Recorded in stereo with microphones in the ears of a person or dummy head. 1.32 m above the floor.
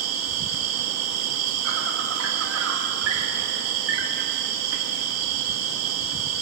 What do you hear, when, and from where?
0.0 s an insect: 75° right (ahead or behind), 2.0 m